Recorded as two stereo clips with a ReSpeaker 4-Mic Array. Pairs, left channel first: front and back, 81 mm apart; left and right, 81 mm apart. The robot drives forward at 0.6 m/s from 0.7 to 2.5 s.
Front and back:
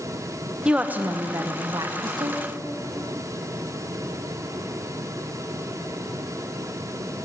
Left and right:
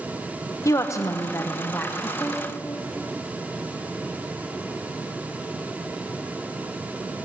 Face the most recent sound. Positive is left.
turn(degrees=160)